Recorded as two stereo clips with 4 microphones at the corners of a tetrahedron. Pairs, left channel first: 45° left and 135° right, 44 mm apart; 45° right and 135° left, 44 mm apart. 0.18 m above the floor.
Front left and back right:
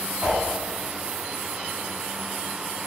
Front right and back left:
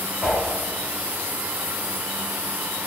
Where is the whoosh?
155° right, 1.9 m.